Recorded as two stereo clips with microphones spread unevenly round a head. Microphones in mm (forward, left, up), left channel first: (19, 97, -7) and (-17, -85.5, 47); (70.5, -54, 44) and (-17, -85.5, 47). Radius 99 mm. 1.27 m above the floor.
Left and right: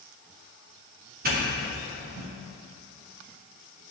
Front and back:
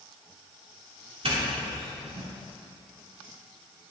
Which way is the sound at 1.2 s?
145° right.